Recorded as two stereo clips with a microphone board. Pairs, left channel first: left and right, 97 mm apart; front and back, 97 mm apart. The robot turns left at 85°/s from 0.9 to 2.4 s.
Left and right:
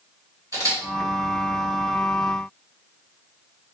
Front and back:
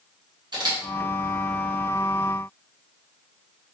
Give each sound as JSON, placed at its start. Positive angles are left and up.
{"t": 0.5, "sound": "a camera shutter", "azimuth_deg": -140, "distance_m": 2.0}